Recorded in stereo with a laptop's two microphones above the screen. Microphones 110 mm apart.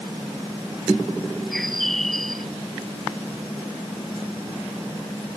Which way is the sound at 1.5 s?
Centre (ahead or behind).